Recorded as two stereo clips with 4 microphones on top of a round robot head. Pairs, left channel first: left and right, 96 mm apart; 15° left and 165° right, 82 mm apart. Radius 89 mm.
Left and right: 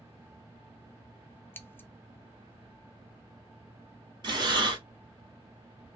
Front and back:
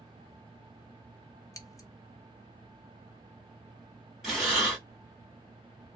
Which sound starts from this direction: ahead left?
Scissors, at 1.5 s.